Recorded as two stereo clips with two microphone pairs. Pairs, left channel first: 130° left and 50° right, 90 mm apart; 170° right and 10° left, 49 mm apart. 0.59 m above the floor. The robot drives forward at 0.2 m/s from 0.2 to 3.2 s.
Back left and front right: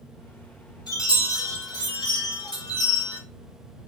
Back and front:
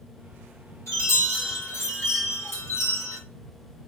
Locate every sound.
0.9 s a chime: 175° left, 1.4 m